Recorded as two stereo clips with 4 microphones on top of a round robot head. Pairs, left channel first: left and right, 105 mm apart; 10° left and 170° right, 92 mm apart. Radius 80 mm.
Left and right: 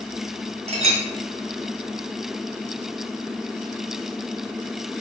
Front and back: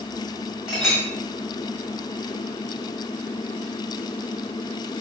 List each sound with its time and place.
0.7 s a clink: 85° right, 1.2 m